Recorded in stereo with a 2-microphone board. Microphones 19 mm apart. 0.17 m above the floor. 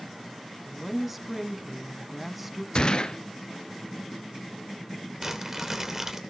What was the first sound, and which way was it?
A woman speaking, 5° right (ahead or behind).